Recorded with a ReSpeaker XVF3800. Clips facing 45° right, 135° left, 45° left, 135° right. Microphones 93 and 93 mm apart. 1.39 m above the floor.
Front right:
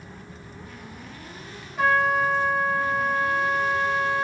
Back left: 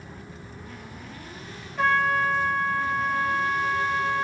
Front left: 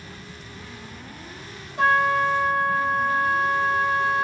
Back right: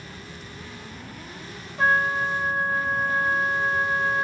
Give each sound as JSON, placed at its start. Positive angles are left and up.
{"t": 1.8, "sound": "a trumpet", "azimuth_deg": 40, "distance_m": 1.2}